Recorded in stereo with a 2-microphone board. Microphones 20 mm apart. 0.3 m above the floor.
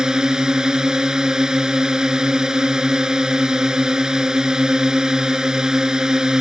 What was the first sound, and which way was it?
A drone, 35° right (ahead or behind).